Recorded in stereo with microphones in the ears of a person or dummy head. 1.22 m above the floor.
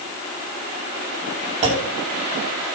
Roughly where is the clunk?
Right.